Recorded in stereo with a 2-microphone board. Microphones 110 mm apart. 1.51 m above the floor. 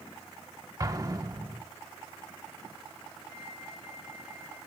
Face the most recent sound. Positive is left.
turn(degrees=45)  # may be behind; listen again after turning